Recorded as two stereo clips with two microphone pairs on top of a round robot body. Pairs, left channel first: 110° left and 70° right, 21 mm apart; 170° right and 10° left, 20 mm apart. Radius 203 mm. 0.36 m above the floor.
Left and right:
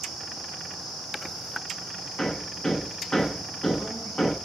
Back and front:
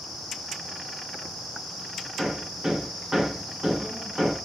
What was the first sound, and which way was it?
Hammering, 75° left.